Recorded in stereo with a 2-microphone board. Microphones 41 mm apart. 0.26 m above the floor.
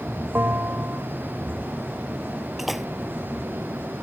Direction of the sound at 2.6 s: 5° right (ahead or behind).